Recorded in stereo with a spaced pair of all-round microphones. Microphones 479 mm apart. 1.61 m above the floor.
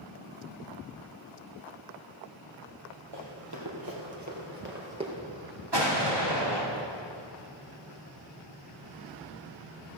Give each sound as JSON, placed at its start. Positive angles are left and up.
{"t": 3.1, "sound": "running footsteps", "side_deg": -55, "distance_m": 3.5}
{"t": 5.7, "sound": "an explosion", "side_deg": -55, "distance_m": 2.5}